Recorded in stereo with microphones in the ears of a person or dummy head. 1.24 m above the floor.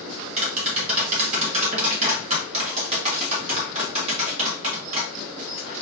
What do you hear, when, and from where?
0.4 s tapping: 35° right (ahead or behind), 1.7 m